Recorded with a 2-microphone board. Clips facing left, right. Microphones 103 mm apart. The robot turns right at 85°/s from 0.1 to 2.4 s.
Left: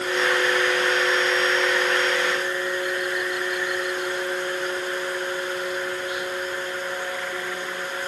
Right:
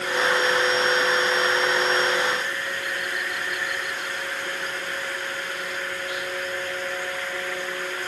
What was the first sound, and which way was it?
Only background noise.